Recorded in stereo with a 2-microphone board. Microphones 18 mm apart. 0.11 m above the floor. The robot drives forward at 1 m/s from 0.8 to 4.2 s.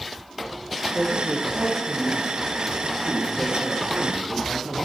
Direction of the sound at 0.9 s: 65° right (ahead or behind).